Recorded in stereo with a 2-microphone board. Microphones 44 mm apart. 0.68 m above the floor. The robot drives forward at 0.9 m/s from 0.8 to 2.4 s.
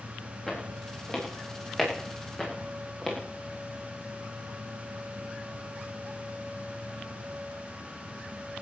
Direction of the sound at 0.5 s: 20° left (ahead or behind).